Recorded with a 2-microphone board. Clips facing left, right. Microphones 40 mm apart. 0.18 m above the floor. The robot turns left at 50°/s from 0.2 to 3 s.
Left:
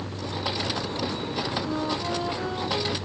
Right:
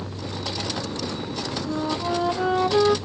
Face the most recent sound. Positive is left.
turn(degrees=-70)